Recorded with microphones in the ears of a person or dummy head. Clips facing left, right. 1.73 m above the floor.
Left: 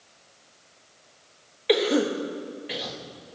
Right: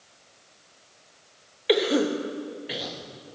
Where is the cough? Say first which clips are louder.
Even; 5° right (ahead or behind), 1.1 m.